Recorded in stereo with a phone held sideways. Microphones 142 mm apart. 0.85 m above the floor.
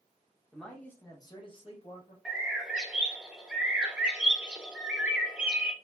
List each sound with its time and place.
0.5 s a man speaking: centre (ahead or behind), 0.8 m; by 2.1 s 50° left (ahead or behind), 1.1 m
2.2 s a bird: 5° right (ahead or behind), 0.5 m